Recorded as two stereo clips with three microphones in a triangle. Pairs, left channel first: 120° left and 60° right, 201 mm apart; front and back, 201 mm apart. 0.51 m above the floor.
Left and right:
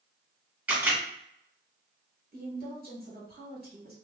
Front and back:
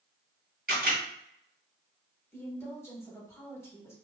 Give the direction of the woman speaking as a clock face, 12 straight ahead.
2 o'clock.